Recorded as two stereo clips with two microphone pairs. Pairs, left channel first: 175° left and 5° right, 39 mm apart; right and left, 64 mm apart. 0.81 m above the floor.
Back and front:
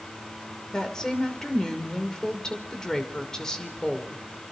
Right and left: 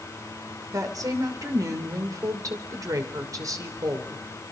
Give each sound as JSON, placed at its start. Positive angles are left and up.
{"t": 0.7, "sound": "a woman speaking", "azimuth_deg": 100, "distance_m": 3.0}